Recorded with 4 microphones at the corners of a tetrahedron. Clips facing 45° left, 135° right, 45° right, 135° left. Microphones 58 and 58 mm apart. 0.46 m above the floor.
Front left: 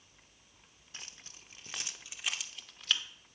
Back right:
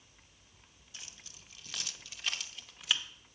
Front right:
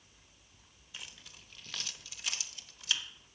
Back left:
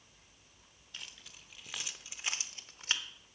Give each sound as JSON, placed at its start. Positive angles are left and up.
{"t": 0.9, "sound": "keys jangling", "azimuth_deg": 40, "distance_m": 0.9}